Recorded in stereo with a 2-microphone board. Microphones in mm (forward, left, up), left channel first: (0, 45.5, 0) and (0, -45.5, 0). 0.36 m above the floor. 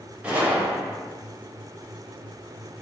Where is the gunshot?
15° right (ahead or behind), 0.7 m.